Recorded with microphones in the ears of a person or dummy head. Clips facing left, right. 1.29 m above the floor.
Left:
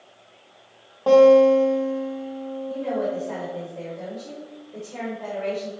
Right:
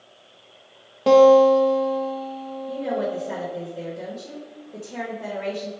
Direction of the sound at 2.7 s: 25° right (ahead or behind).